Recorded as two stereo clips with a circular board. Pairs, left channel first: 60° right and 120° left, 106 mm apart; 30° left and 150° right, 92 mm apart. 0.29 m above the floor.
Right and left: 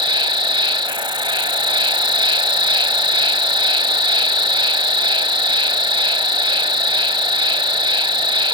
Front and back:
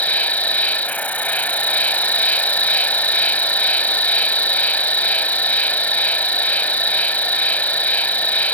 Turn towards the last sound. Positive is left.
turn(degrees=95)